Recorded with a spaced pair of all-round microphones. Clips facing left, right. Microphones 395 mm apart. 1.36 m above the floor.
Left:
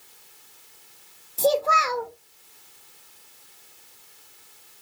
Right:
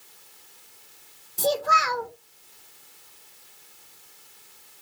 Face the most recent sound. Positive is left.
turn(degrees=-30)  # may be behind; listen again after turning